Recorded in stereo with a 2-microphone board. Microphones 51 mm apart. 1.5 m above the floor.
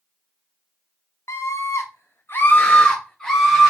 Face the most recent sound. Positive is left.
turn(degrees=5)  # may be behind; listen again after turning